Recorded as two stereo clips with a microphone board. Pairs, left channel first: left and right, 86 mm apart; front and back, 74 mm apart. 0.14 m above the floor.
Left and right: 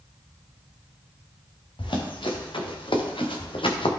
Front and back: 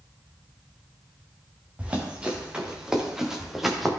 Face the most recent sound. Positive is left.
turn(degrees=90)